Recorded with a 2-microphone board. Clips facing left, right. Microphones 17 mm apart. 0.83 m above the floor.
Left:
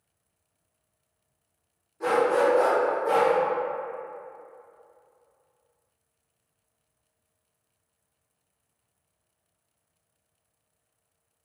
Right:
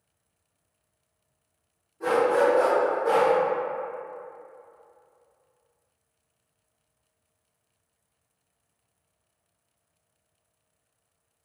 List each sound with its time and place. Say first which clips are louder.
2.0 s a dog barking: right 1 dB; 40° left (ahead or behind), 0.8 m; by 3.3 s 50° right (ahead or behind), 1.0 m